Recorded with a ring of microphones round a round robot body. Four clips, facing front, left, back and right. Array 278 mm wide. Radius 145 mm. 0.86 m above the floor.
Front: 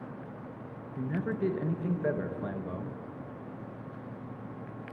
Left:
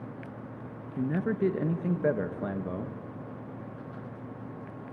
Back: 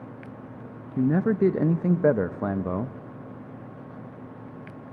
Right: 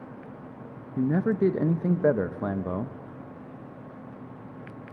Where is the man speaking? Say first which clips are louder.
Right 5 dB, back 11 dB; 155° right, 0.8 m.